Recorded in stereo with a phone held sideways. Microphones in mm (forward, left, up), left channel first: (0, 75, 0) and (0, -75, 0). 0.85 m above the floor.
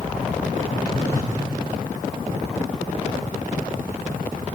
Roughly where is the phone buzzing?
Left.